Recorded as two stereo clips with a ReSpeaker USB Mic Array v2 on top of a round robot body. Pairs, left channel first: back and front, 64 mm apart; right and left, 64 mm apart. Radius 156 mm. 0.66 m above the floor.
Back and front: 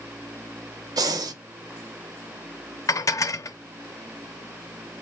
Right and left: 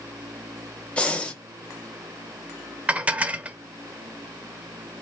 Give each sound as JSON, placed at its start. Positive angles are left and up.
{"t": 1.0, "sound": "breathing", "azimuth_deg": -15, "distance_m": 0.6}
{"t": 2.9, "sound": "dishes clattering", "azimuth_deg": 160, "distance_m": 0.6}